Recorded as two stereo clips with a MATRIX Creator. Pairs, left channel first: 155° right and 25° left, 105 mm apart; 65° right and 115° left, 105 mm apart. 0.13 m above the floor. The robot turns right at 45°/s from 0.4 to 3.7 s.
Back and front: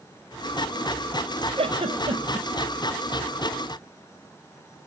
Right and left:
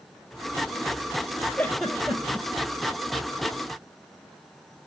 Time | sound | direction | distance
1.6 | a giggle | 10° left | 1.1 m